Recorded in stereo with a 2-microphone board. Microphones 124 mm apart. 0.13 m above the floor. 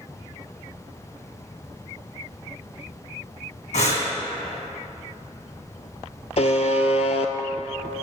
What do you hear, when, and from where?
3.7 s breathing: 65° left (ahead or behind), 2.0 m
6.4 s a buzzer: 65° left (ahead or behind), 0.5 m